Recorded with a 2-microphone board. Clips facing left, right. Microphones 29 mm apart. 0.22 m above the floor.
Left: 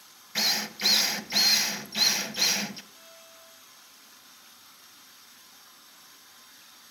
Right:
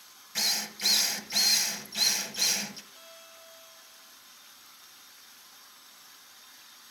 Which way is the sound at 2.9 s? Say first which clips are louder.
Right 1 dB; 20° right (ahead or behind).